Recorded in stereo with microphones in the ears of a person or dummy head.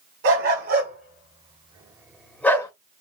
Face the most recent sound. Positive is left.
turn(degrees=20)  # may be behind; listen again after turning